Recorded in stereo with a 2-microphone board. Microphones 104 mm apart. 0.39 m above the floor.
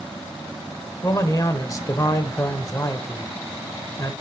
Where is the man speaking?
35° left (ahead or behind), 1.1 m.